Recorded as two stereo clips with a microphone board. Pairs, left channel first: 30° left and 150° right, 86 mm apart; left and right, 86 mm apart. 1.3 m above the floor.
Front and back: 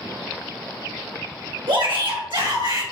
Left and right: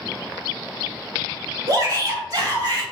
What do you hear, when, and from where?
1.7 s a shout: 135° right, 1.3 m